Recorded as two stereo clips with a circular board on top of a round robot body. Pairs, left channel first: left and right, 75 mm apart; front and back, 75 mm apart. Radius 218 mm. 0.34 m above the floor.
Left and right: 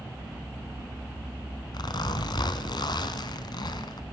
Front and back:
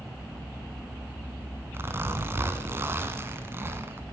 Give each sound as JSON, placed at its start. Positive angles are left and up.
{"t": 1.7, "sound": "a zipper", "azimuth_deg": 120, "distance_m": 0.7}